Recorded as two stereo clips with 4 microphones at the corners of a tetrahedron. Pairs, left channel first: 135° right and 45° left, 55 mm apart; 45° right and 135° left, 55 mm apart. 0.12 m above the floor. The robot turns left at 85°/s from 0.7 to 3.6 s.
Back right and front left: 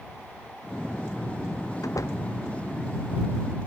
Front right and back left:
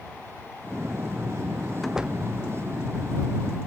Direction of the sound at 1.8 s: 135° right.